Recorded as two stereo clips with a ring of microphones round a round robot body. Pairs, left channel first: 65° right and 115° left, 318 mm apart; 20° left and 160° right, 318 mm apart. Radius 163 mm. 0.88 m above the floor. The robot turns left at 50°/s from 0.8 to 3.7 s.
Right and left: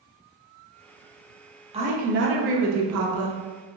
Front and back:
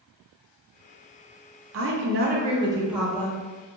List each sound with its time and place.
1.7 s a woman speaking: straight behind, 0.7 m; by 3.4 s 95° left, 0.7 m